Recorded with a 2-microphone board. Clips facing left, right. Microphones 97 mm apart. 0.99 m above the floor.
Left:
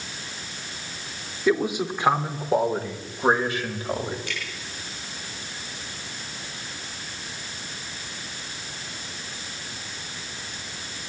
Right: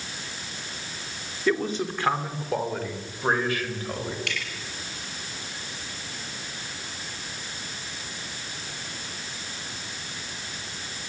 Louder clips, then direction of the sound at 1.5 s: Left 3 dB; 10° left (ahead or behind).